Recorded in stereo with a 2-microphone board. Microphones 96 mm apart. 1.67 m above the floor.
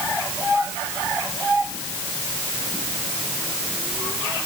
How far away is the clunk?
No clunk in this recording.